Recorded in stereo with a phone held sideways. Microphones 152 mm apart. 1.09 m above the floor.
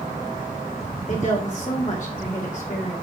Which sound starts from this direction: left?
A woman speaking, at 1.1 s.